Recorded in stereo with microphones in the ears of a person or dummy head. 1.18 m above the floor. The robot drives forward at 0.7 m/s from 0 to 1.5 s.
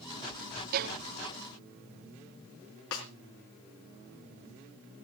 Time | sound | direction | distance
0.7 | a violin | 50° right (ahead or behind) | 0.9 m
2.9 | a snare drum | 75° left (ahead or behind) | 3.5 m